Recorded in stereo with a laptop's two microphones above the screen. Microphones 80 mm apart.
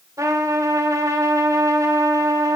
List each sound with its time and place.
0.2 s a trumpet: 50° right (ahead or behind), 3 m